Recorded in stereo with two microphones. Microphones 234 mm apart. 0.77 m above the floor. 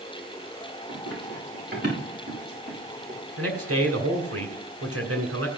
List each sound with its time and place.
0.9 s running footsteps: 45° right (ahead or behind), 8.5 m; by 3.2 s 35° right (ahead or behind), 6 m
3.4 s a man speaking: 80° right, 2.5 m